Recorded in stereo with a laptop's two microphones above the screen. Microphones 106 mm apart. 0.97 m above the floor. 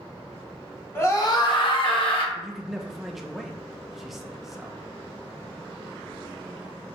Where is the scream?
25° left (ahead or behind), 0.9 m; by 2.2 s 55° left (ahead or behind), 1.4 m.